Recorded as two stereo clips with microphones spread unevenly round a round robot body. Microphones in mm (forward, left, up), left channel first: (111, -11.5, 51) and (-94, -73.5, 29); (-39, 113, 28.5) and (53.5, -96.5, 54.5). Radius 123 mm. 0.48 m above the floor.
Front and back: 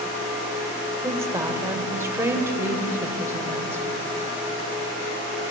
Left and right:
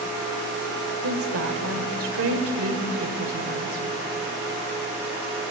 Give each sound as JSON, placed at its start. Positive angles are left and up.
{"t": 1.0, "sound": "a woman speaking", "azimuth_deg": -90, "distance_m": 2.0}